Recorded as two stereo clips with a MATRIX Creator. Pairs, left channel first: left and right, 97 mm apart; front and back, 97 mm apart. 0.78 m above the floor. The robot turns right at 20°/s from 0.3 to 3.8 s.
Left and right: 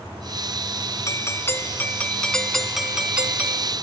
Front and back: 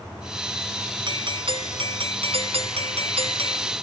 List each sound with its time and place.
1.1 s a doorbell: 150° left; by 3.7 s 160° right